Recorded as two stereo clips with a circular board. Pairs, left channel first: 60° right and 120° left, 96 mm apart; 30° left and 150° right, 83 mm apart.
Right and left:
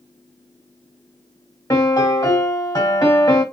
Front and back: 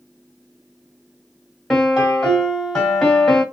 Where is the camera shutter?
I don't hear a camera shutter.